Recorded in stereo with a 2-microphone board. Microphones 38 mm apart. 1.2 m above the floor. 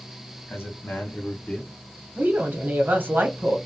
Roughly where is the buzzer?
I don't hear a buzzer.